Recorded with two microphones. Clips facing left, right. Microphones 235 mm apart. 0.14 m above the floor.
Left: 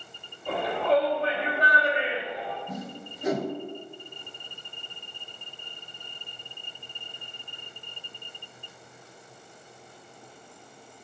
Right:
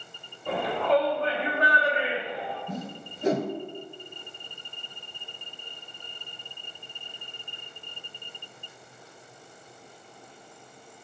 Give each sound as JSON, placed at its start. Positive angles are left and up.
{"t": 0.5, "sound": "a shout", "side_deg": 5, "distance_m": 1.5}
{"t": 2.7, "sound": "a whoosh", "side_deg": -30, "distance_m": 0.6}